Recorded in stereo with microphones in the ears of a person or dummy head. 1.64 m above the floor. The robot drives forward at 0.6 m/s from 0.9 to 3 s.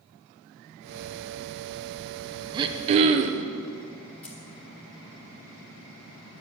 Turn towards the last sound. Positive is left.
turn(degrees=5)  # may be behind; listen again after turning